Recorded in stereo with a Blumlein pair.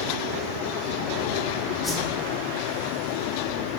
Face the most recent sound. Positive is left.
turn(degrees=0)